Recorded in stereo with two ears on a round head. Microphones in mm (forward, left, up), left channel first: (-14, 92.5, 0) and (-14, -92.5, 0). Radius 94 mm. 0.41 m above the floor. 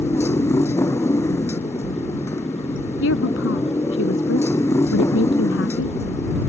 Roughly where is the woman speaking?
Left.